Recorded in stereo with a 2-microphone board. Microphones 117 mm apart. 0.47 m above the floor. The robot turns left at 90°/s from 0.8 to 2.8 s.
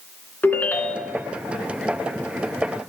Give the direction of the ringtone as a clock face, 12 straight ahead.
11 o'clock.